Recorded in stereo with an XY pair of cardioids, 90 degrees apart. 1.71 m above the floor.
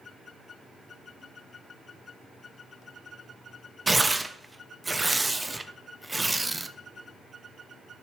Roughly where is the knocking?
No knocking in this recording.